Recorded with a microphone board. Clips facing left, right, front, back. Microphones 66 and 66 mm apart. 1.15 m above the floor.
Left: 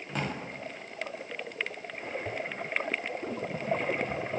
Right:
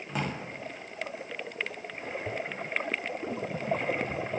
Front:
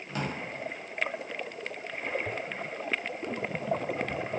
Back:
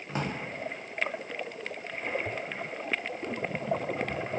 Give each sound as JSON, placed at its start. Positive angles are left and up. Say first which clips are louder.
{"t": 0.1, "sound": "a drawer", "louder": "right 1 dB, back 1 dB", "azimuth_deg": -170, "distance_m": 0.6}